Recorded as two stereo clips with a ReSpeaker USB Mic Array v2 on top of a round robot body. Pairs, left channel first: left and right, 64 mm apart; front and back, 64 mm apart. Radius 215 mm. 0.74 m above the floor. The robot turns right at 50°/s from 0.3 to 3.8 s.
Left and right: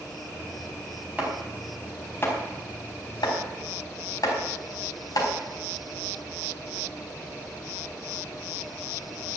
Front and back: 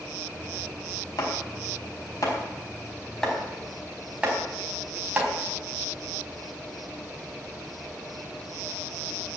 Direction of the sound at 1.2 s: 20° right.